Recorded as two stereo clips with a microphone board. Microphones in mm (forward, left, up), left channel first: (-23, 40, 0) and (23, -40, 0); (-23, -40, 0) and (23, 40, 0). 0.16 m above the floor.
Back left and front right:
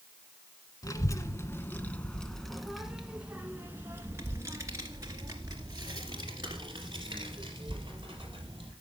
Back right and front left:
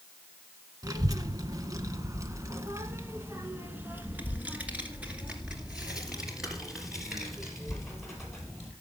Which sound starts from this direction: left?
A child speaking, at 0.8 s.